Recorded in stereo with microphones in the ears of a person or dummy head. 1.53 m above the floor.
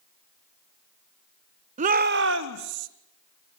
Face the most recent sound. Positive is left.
turn(degrees=-85)